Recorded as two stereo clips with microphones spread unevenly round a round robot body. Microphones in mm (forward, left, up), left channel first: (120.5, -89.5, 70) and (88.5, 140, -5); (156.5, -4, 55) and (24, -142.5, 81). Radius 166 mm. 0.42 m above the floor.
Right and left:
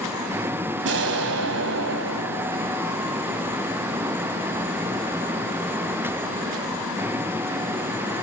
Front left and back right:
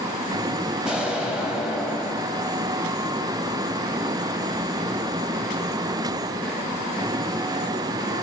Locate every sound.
0.8 s an explosion: 135° left, 1.2 m